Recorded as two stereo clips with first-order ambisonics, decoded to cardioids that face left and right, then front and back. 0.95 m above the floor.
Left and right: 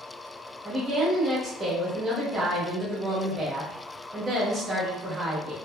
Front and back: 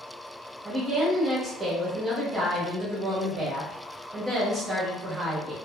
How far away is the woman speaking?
About 0.8 m.